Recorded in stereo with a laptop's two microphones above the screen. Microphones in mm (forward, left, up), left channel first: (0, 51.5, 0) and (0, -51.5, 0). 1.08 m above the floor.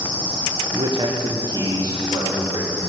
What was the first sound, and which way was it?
A man speaking, 40° right (ahead or behind).